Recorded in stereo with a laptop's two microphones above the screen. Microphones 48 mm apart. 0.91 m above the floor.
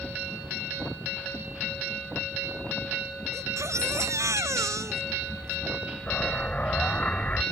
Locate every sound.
3.3 s a baby crying: 90° right
6.1 s an explosion: 30° left (ahead or behind)